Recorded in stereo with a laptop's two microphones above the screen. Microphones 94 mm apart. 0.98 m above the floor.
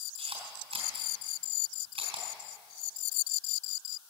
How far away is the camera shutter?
About 3.5 m.